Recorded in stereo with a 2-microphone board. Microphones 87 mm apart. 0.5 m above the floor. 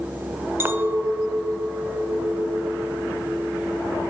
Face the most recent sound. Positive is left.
turn(degrees=-25)  # may be behind; listen again after turning